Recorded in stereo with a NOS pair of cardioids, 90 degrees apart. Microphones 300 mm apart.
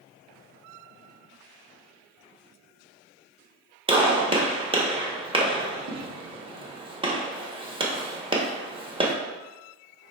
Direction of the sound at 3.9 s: 15° right.